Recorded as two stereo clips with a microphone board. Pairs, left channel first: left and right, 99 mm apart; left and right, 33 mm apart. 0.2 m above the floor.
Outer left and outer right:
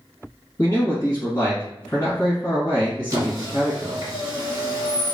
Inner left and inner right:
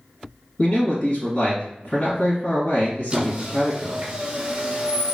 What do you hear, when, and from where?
0.6 s a man speaking: 40° left (ahead or behind), 1.7 m
3.1 s a squeak: 40° right (ahead or behind), 0.9 m